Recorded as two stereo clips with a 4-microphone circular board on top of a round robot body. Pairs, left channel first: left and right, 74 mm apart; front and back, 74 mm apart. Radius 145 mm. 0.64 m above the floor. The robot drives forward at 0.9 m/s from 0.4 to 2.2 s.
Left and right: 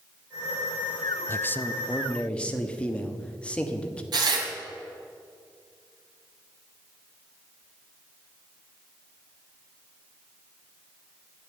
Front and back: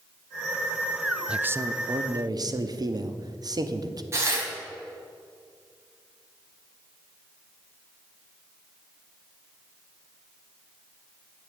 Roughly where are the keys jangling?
I don't hear keys jangling.